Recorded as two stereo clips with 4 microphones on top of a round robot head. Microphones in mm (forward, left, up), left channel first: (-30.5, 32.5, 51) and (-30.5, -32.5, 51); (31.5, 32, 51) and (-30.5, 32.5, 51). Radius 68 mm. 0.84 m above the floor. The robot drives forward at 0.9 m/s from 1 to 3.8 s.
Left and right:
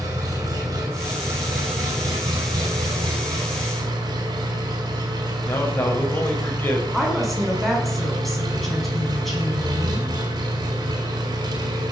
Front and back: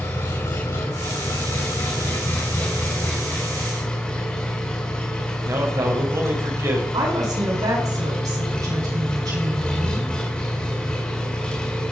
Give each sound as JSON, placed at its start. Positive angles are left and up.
{"t": 0.0, "sound": "an engine running", "azimuth_deg": -50, "distance_m": 5.5}
{"t": 5.5, "sound": "a man speaking", "azimuth_deg": 150, "distance_m": 5.0}
{"t": 6.9, "sound": "a woman speaking", "azimuth_deg": 180, "distance_m": 7.5}